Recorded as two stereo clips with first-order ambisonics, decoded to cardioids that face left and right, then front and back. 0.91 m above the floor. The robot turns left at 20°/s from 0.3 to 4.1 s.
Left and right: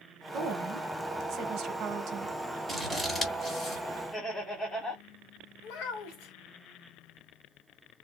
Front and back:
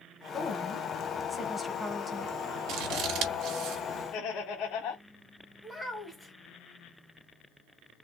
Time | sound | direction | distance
0.3 | a woman speaking | 65° right | 1.1 m
2.7 | scissors | 175° left | 1.1 m
4.1 | laughter | 10° left | 1.2 m
5.6 | a child speaking | 85° left | 1.6 m